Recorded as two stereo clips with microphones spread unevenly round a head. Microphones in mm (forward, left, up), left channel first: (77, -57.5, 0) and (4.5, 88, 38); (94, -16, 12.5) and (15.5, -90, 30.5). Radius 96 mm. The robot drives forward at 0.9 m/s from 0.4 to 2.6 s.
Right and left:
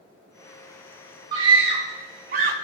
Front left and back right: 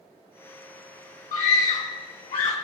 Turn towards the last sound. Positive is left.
turn(degrees=90)